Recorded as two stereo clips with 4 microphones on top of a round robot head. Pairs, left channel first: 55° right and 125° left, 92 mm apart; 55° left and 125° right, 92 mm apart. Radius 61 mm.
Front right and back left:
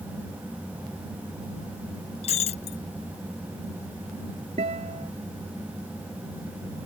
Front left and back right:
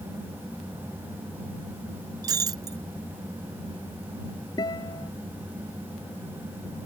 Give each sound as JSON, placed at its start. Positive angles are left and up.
{"t": 2.2, "sound": "breaking glass", "azimuth_deg": -70}
{"t": 4.6, "sound": "a guitar", "azimuth_deg": 105}